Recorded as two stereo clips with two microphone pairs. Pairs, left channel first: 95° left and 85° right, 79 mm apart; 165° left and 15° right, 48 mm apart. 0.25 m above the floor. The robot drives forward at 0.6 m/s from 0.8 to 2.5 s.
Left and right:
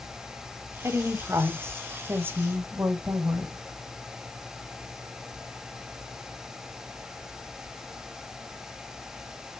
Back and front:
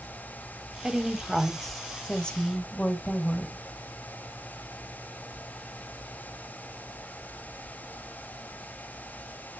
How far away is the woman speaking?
About 1.3 m.